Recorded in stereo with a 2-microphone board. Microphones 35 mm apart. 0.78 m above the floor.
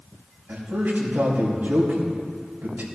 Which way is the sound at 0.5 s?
75° right (ahead or behind).